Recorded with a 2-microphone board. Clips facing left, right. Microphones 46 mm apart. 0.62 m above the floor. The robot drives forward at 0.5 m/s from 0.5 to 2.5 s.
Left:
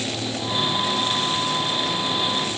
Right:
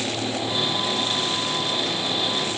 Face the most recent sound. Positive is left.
No sound to turn to.